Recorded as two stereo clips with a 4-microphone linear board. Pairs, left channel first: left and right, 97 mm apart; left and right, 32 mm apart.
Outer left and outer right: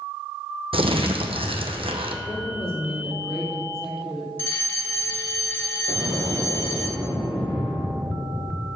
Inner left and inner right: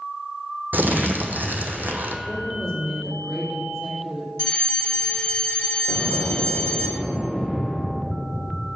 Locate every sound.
0.7 s crumpling: 80° right, 0.9 m
2.2 s a woman speaking: 5° right (ahead or behind), 3 m
4.4 s a fire alarm: 20° left (ahead or behind), 2 m
5.9 s an explosion: 55° right (ahead or behind), 3 m